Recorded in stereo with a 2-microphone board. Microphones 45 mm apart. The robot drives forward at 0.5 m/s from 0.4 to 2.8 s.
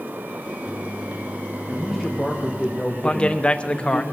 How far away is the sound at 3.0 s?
About 0.9 m.